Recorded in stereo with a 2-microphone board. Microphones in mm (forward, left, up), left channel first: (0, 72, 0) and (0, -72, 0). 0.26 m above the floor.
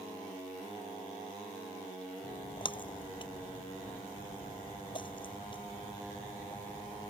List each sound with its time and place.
2.2 s a splash: 35° left (ahead or behind)